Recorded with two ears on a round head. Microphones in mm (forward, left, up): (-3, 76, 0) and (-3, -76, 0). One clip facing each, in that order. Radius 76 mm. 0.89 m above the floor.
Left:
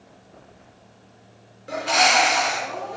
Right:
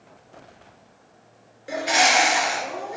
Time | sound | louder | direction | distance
1.7 | a bird | even | 10° right (ahead or behind) | 2 m